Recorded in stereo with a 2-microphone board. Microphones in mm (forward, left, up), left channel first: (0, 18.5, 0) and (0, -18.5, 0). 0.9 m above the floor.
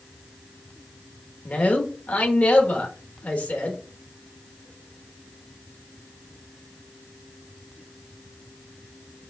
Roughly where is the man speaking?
Left.